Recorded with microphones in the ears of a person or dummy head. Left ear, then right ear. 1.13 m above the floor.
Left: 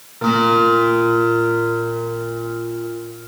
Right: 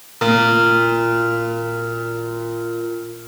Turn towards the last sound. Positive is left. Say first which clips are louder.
# right 1 dB
turn(degrees=-75)  # may be behind; listen again after turning